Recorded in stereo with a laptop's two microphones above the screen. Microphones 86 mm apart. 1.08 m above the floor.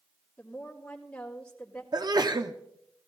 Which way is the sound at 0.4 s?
10° left (ahead or behind).